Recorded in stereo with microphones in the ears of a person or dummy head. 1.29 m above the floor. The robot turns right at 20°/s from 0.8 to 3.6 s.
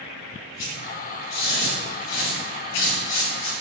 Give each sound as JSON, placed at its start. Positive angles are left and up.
{"t": 0.6, "sound": "tearing paper", "side_deg": 50, "distance_m": 4.0}